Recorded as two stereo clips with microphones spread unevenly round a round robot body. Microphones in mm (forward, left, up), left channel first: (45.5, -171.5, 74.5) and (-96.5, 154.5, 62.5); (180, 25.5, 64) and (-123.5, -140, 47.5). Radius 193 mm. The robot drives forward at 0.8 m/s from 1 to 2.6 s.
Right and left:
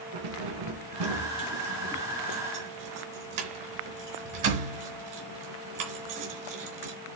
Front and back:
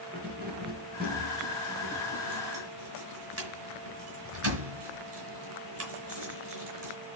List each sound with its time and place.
0.1 s keys jangling: 140° left, 3 m; by 6.9 s 150° left, 4.5 m